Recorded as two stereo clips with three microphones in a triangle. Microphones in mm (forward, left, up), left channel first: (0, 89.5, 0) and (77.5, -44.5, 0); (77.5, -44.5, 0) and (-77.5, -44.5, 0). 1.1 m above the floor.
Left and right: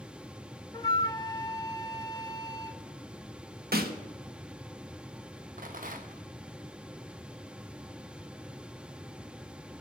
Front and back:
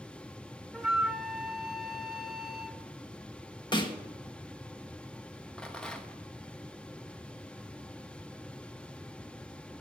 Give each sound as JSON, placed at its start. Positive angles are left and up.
{"t": 0.7, "sound": "a flute", "azimuth_deg": 90, "distance_m": 0.6}
{"t": 3.7, "sound": "a snare drum", "azimuth_deg": -60, "distance_m": 1.2}
{"t": 5.6, "sound": "a rattle", "azimuth_deg": -85, "distance_m": 1.0}